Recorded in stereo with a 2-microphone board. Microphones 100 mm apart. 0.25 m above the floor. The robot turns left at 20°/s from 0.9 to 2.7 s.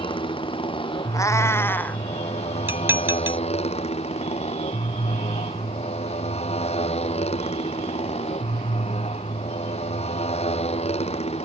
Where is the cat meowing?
30° left (ahead or behind); by 2.0 s 15° left (ahead or behind).